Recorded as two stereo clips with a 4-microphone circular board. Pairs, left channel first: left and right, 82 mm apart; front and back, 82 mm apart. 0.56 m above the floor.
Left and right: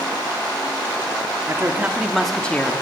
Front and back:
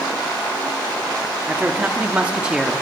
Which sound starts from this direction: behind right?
A woman speaking, at 1.5 s.